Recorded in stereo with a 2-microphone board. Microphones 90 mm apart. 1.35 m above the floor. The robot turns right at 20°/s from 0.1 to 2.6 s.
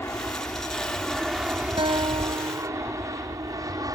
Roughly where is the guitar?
Right.